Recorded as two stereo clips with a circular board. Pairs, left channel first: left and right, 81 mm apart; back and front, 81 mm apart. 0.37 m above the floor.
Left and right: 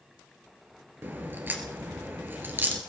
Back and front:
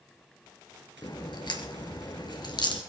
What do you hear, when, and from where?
1.0 s a crack: 155° right, 3 m